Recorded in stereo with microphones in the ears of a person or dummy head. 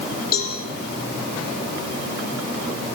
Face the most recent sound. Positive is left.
turn(degrees=55)  # may be behind; listen again after turning